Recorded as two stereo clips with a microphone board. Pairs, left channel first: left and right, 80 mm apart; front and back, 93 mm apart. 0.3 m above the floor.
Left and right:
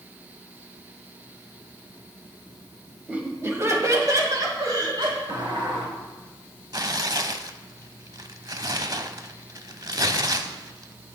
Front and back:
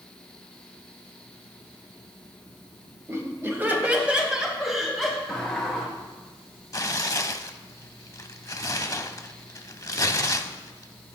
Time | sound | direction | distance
3.1 | laughter | 150° right | 1.8 m
5.3 | a sliding door | 85° right | 2.5 m
6.7 | tearing paper | 50° right | 0.5 m